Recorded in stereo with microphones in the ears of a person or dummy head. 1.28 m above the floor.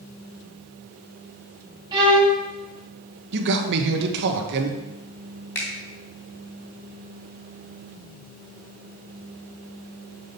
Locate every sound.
1.9 s a violin: 20° right (ahead or behind), 2 m
3.3 s a man speaking: 60° right (ahead or behind), 1.3 m
5.5 s a finger snap: 15° left (ahead or behind), 2.5 m